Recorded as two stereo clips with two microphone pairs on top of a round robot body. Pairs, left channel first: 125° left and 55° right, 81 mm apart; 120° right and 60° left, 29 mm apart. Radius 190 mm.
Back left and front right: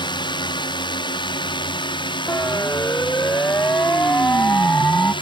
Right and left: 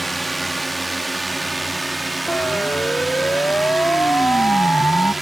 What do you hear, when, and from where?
0.0 s a drone: 150° left; by 5.2 s 145° left
2.3 s a siren: 165° right; by 5.1 s 160° right